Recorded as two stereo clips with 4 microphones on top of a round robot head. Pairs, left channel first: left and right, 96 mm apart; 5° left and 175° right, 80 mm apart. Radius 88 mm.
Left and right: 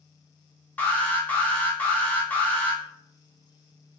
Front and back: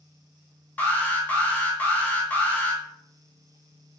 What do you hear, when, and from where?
0.8 s an alarm: 40° left, 1.2 m